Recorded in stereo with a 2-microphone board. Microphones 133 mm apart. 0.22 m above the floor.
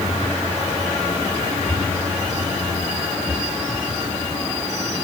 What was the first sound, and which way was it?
Only background noise.